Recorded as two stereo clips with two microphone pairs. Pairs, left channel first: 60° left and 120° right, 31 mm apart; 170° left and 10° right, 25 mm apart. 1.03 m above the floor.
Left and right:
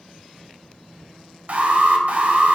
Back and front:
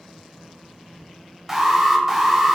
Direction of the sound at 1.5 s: 90° right.